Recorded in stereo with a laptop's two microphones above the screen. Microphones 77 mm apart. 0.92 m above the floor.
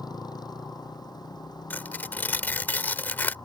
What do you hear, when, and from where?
0.0 s a motorcycle: 60° left (ahead or behind); by 3.5 s 65° left (ahead or behind)
1.7 s tearing paper: 25° left (ahead or behind)